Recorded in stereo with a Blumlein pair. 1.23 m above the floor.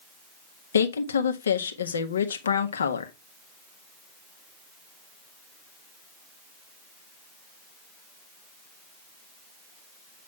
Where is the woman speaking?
70° left, 1.6 m.